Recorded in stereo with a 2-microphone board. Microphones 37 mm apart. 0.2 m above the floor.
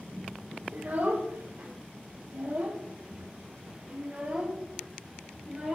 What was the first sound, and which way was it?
A child speaking, 60° right (ahead or behind).